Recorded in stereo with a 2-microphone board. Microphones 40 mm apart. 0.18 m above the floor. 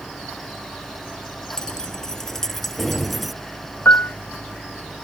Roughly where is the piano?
Left.